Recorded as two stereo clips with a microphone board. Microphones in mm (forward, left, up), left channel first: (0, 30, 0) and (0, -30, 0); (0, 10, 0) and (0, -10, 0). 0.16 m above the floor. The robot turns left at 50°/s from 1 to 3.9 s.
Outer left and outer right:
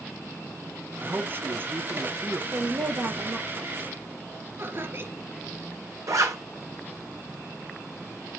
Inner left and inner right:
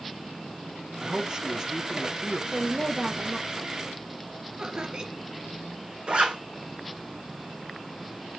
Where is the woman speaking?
75° right, 3.5 m; by 3.9 s 145° right, 3.5 m.